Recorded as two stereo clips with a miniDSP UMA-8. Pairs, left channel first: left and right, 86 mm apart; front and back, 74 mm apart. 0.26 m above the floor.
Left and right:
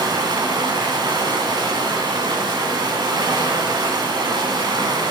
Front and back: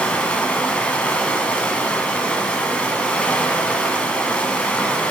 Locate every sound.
0.0 s running water: 75° right, 1.1 m